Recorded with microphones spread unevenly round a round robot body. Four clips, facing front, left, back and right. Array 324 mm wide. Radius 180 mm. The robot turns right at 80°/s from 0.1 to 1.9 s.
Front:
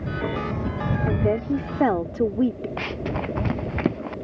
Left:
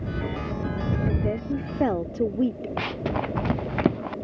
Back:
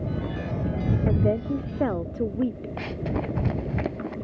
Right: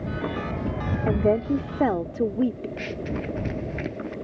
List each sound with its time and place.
1.1 s a woman speaking: 75° right; by 2.7 s 10° right
2.8 s running footsteps: 60° left; by 4.1 s 65° left